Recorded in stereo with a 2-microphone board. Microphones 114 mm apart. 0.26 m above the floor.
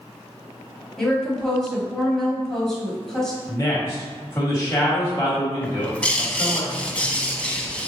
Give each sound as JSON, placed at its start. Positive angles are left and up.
{"t": 1.0, "sound": "a woman speaking", "side_deg": 5, "distance_m": 1.2}
{"t": 3.5, "sound": "a man speaking", "side_deg": 25, "distance_m": 1.2}
{"t": 5.6, "sound": "a bird", "side_deg": 10, "distance_m": 0.5}